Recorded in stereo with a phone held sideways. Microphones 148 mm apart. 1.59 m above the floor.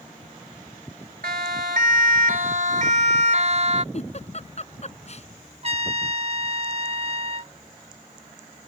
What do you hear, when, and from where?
1.2 s a siren: 75° right (ahead or behind); by 3.8 s 50° right (ahead or behind)
3.9 s a giggle: 50° left (ahead or behind)
5.6 s a trumpet: 45° right (ahead or behind)